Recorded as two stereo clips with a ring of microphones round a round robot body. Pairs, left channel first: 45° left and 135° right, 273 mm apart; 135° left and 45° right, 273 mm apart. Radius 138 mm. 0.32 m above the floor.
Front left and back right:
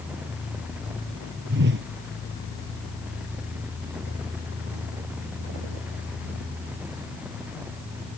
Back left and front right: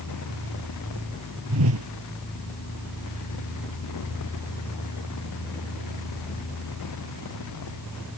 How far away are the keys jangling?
No keys jangling in this recording.